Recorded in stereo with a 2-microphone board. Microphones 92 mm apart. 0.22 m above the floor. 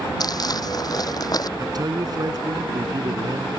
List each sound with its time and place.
0.2 s crumpling: 45° left (ahead or behind)
1.6 s a man speaking: 50° right (ahead or behind)